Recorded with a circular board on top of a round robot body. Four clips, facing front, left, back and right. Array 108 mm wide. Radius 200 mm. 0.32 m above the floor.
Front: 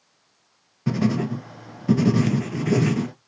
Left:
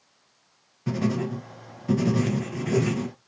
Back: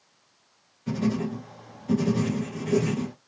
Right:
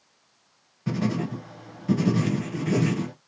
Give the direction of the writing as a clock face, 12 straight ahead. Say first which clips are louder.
Left 1 dB, front 4 dB; 12 o'clock.